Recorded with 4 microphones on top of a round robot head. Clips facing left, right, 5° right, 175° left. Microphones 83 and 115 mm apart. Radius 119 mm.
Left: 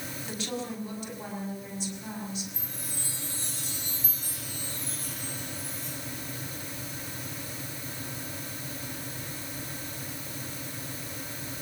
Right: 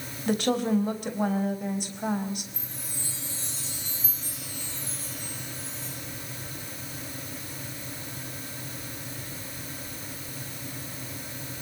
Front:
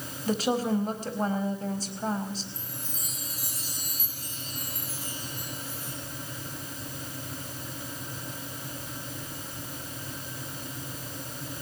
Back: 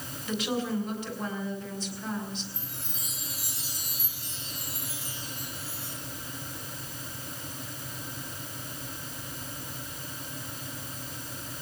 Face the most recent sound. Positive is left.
turn(degrees=45)